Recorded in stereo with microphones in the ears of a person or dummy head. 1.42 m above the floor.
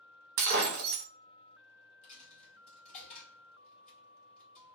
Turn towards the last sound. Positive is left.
turn(degrees=40)  # may be behind; listen again after turning